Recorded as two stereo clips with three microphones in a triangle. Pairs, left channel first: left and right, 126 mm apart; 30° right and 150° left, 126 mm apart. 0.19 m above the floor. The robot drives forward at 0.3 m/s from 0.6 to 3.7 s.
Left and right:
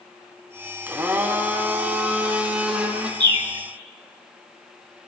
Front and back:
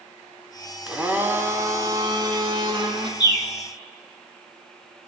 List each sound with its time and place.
0.9 s a blender: 135° right, 0.6 m; by 3.1 s 170° right, 1.0 m
3.2 s a bird: 65° right, 0.5 m; by 3.5 s 80° right, 0.5 m